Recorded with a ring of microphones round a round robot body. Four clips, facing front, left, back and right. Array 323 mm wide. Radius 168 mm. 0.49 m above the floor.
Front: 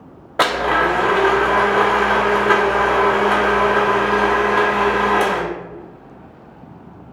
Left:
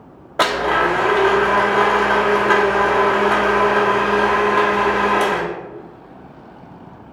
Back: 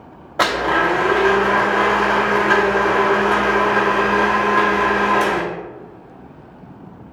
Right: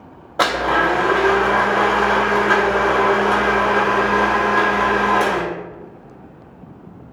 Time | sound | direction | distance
0.4 | a blender | 25° left | 0.8 m